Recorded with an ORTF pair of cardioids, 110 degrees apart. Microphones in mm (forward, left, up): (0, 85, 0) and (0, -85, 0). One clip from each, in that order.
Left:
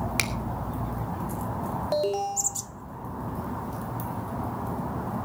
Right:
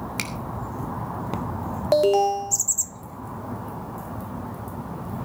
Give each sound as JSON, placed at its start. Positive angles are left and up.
{"t": 0.2, "sound": "a finger snap", "azimuth_deg": 20, "distance_m": 1.8}
{"t": 1.9, "sound": "an alarm", "azimuth_deg": -45, "distance_m": 1.9}